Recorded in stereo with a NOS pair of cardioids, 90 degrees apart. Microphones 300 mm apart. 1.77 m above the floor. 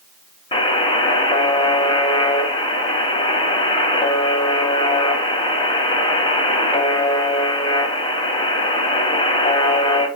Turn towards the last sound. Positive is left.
turn(degrees=15)